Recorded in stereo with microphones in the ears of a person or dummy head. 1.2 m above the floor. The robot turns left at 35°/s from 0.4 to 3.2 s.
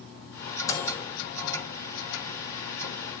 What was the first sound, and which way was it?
A microwave, 20° left (ahead or behind).